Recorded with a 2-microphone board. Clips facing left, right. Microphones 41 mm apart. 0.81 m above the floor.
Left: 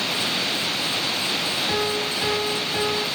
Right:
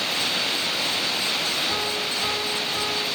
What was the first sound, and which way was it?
A piano, 35° left (ahead or behind).